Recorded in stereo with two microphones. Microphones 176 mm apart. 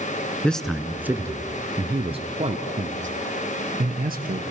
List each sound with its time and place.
0.4 s a man speaking: 5° left (ahead or behind), 1.1 m; by 4.4 s 55° right (ahead or behind), 2 m